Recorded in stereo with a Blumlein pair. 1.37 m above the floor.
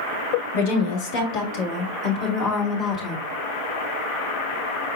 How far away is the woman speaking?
About 1.5 m.